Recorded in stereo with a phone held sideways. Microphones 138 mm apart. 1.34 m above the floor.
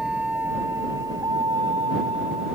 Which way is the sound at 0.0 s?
5° right (ahead or behind).